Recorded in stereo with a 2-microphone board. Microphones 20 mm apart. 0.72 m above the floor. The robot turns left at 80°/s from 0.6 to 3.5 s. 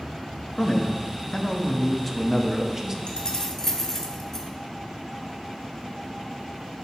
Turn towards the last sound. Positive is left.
turn(degrees=25)  # may be behind; listen again after turning